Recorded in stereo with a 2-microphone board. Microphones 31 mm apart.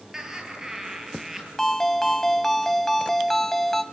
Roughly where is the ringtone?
Centre.